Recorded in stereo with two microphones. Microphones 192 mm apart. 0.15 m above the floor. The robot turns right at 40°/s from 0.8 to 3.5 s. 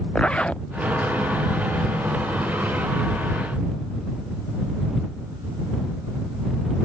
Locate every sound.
0.1 s a zipper: 5° left (ahead or behind)